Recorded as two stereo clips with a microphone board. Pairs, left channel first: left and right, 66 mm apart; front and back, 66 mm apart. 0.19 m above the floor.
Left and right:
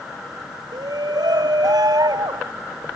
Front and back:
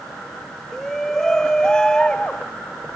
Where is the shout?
85° right; by 2.5 s 75° right.